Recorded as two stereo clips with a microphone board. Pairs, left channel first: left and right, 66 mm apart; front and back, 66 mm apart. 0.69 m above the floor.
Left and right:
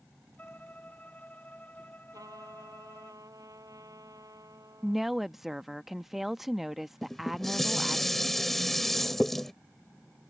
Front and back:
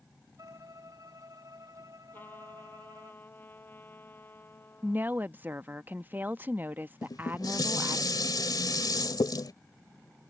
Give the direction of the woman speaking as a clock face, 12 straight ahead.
6 o'clock.